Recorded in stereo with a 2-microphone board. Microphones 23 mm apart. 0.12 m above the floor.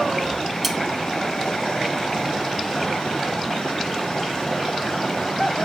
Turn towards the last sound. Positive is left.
turn(degrees=0)  # may be behind; listen again after turning